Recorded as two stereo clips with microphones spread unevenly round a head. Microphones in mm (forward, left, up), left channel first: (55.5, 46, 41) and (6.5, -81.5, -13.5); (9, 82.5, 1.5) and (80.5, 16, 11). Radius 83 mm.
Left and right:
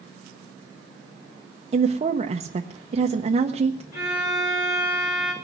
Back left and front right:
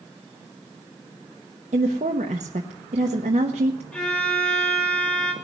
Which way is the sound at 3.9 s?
60° left.